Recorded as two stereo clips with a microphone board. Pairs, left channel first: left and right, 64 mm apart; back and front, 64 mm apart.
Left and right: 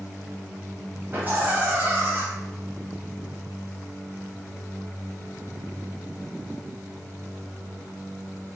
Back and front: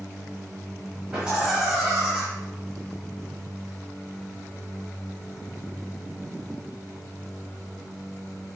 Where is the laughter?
70° right, 1.4 m.